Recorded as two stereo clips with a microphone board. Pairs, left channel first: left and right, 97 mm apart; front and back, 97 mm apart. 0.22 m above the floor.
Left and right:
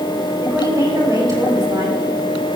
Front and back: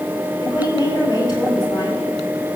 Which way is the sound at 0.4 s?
40° right.